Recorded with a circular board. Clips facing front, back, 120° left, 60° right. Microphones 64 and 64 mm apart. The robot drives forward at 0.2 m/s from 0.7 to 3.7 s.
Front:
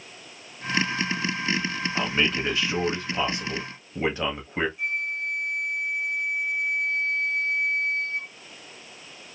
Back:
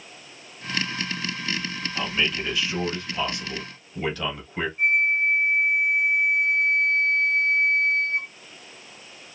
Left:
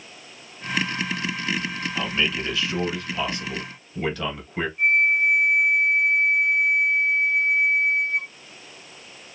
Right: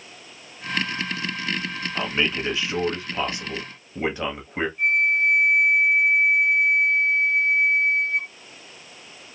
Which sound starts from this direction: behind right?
A flute, at 4.8 s.